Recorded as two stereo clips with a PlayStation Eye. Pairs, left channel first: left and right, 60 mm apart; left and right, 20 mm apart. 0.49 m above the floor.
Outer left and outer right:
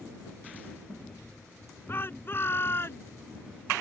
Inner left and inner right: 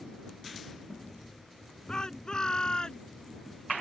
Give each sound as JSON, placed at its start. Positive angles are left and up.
{"t": 1.9, "sound": "a shout", "side_deg": 40}